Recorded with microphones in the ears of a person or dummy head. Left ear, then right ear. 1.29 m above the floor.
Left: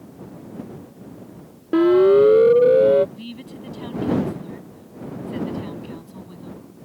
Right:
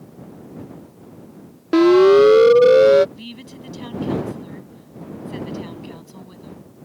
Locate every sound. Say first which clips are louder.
1.7 s a siren: right 3 dB; 35° right (ahead or behind); by 3.0 s 55° right (ahead or behind)
3.1 s a woman speaking: even; 5° right (ahead or behind)